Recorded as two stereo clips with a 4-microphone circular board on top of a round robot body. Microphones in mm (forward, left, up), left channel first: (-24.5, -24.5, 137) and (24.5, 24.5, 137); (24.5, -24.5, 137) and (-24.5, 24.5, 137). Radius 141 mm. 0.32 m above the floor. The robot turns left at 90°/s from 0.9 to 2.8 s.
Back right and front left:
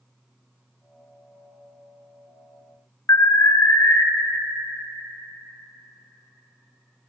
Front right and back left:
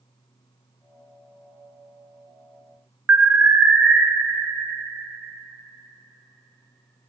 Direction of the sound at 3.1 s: 160° right.